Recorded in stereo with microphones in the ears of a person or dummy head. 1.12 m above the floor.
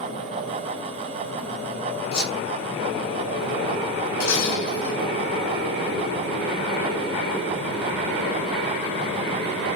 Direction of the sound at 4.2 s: 70° left (ahead or behind).